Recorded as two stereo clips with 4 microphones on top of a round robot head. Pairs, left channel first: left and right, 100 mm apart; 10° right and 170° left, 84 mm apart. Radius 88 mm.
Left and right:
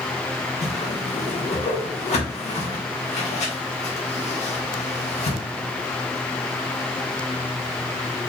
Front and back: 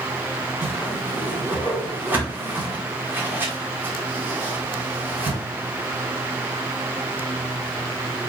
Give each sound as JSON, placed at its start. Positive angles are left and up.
{"t": 0.6, "sound": "a whoosh", "azimuth_deg": 105, "distance_m": 1.3}